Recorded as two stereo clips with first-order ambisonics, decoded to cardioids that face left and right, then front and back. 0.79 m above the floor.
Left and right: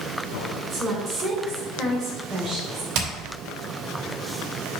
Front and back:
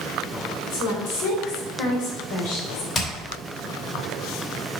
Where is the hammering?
60° right, 2.5 m.